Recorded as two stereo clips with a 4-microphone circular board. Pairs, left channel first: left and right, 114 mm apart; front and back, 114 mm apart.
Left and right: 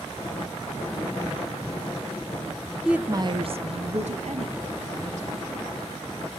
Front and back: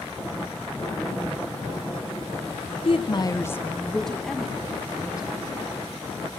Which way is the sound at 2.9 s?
5° right.